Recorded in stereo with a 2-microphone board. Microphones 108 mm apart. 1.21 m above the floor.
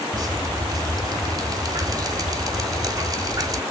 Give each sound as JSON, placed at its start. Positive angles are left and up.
{"t": 0.1, "sound": "dripping", "side_deg": -35, "distance_m": 1.1}